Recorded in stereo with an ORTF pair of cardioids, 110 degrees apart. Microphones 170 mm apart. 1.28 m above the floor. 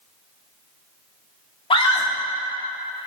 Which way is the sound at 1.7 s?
35° left.